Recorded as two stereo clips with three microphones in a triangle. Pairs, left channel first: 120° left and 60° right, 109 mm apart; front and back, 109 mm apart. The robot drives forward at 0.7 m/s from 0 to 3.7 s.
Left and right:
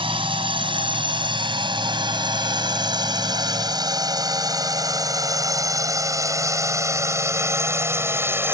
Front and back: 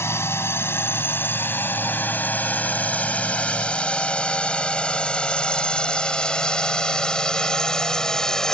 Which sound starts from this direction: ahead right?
A drone, at 0.0 s.